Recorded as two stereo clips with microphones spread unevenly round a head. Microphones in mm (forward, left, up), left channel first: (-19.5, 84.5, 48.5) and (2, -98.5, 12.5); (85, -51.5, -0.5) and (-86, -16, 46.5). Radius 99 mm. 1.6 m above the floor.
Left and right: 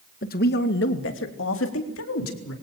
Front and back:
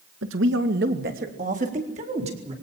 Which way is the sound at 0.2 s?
140° left.